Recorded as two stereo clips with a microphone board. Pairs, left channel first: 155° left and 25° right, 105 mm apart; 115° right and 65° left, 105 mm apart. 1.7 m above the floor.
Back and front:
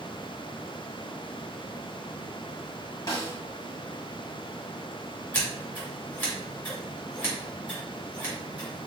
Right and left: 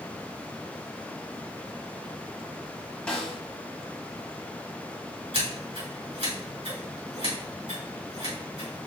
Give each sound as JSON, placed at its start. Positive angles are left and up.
{"t": 3.1, "sound": "a snare drum", "azimuth_deg": 175, "distance_m": 1.4}
{"t": 5.3, "sound": "scissors", "azimuth_deg": 85, "distance_m": 2.5}